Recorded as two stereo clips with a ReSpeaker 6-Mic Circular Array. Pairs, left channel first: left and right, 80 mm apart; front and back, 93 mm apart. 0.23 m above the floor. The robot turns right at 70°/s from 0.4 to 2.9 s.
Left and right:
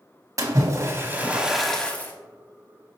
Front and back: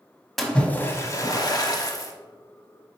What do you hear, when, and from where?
0.4 s a splash: 85° right, 0.6 m; by 2.1 s 35° left, 0.6 m